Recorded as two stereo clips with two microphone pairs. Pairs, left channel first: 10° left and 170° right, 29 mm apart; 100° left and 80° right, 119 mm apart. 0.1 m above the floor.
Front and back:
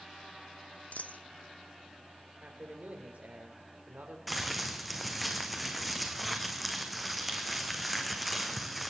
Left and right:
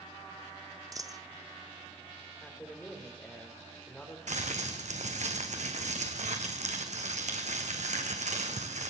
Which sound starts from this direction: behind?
A man speaking, at 2.4 s.